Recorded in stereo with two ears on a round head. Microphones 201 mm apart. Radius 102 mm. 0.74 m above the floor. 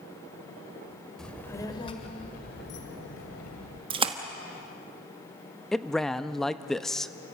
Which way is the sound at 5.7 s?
Centre (ahead or behind).